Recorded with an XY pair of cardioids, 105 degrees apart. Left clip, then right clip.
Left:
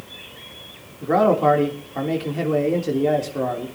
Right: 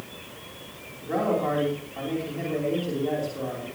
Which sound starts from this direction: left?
A man speaking, at 1.0 s.